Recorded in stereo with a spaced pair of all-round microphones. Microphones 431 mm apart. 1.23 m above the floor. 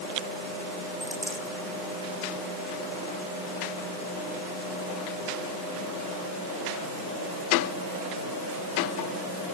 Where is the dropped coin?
15° right (ahead or behind).